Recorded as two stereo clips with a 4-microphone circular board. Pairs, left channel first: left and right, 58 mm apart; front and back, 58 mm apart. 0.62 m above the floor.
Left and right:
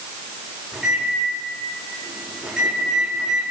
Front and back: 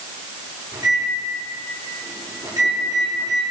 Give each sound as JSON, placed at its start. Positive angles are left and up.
{"t": 0.7, "sound": "a microwave", "azimuth_deg": -170, "distance_m": 5.5}